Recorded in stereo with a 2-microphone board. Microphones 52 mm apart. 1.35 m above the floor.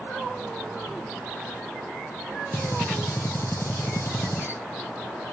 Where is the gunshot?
55° left (ahead or behind), 1.3 m.